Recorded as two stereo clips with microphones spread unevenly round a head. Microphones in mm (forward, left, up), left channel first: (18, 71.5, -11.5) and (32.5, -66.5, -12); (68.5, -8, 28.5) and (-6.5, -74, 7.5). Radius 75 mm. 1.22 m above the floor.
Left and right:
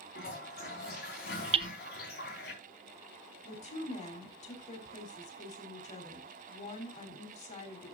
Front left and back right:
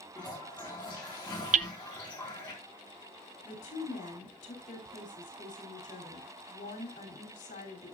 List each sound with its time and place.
0.1 s a toilet flushing: 120° left, 4.5 m
1.5 s hammering: 140° right, 0.6 m
3.4 s a woman speaking: 55° left, 3.5 m